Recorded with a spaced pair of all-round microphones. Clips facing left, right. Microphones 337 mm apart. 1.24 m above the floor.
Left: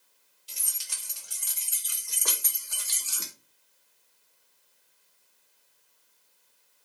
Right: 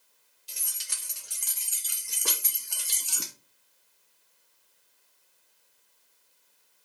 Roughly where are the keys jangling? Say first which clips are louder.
Right 1 dB; right.